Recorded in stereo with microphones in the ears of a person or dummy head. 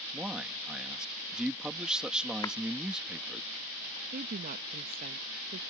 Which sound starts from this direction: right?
A woman speaking, at 4.1 s.